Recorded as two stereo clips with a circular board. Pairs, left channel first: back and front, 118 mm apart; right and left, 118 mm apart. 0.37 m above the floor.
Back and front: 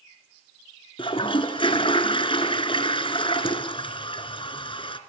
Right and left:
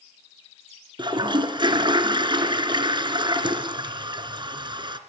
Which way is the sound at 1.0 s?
140° left.